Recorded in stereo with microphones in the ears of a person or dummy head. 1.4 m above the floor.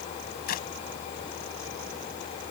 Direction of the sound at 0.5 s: 50° left (ahead or behind).